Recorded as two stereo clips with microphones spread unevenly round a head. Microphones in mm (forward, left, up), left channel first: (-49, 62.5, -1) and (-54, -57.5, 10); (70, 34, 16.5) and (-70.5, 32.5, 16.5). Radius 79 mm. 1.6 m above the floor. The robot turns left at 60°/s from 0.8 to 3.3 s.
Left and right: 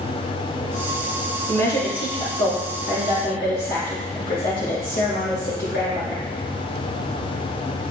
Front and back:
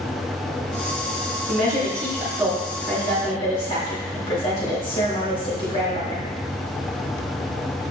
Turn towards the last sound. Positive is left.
turn(degrees=50)